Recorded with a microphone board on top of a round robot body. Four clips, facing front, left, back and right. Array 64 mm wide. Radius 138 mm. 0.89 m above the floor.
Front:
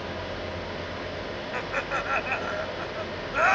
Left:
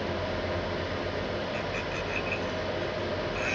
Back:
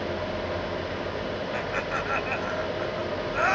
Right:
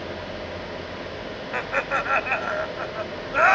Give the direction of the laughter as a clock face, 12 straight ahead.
3 o'clock.